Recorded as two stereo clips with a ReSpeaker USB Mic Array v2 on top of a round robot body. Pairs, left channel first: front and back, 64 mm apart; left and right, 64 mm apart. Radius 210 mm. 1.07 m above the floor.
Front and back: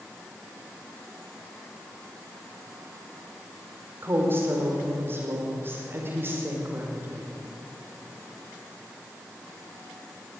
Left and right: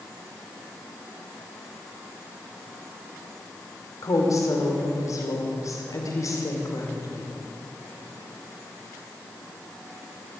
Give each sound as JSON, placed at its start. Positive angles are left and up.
{"t": 4.0, "sound": "a woman speaking", "azimuth_deg": 125, "distance_m": 4.5}